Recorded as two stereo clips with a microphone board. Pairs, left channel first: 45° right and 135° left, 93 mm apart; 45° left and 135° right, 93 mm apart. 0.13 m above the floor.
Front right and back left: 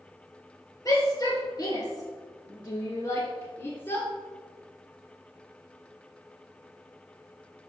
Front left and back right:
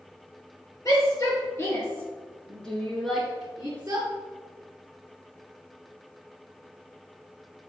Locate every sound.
0.8 s a shout: straight ahead, 3 m; by 4.1 s 95° right, 1.8 m